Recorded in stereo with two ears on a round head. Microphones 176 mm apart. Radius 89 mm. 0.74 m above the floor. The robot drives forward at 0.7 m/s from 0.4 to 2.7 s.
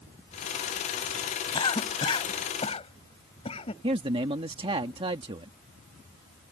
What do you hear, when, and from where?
1.5 s a cough: 25° left (ahead or behind); by 3.7 s 30° left (ahead or behind)
3.8 s a man speaking: 30° right (ahead or behind)